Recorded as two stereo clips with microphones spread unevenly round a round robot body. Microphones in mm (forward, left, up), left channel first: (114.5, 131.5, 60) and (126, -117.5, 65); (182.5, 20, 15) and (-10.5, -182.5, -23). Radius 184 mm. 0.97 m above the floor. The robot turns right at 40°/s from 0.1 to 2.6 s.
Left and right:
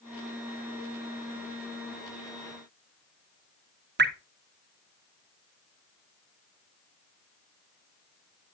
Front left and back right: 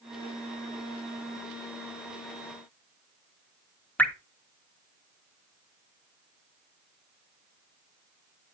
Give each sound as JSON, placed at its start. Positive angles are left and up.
{"t": 4.0, "sound": "dripping", "azimuth_deg": -40, "distance_m": 1.3}